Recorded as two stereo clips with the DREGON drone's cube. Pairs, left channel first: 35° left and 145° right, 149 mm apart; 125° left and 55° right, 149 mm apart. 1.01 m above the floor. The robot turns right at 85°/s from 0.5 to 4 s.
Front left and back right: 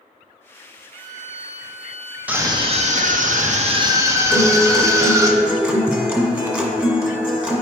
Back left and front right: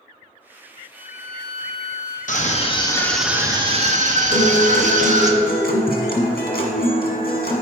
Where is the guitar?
135° left, 1.5 m.